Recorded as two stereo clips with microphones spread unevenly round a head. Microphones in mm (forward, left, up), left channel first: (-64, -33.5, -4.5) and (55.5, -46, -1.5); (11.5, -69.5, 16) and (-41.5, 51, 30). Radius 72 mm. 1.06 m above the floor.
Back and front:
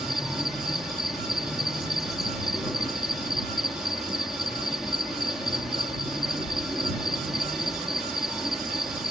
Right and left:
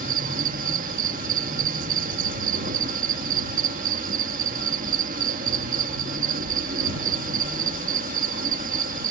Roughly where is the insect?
Left.